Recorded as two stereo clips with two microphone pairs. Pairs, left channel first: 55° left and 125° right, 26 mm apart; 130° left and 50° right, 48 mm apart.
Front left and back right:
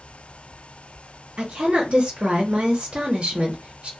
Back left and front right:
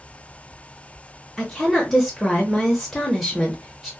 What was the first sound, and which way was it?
A woman speaking, 140° right.